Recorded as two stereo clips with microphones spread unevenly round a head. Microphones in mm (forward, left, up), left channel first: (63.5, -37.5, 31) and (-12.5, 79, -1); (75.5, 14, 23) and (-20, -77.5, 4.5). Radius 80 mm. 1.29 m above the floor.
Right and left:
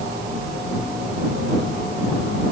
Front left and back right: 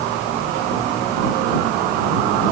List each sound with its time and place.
Only background noise.